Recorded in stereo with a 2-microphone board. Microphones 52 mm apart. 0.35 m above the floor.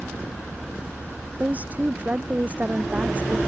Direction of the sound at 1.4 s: 30° right (ahead or behind).